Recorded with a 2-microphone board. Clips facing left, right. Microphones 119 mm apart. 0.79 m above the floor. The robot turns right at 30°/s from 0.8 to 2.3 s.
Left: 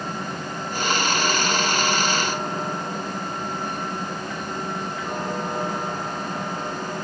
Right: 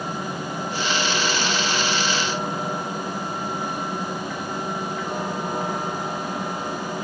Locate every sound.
Only background noise.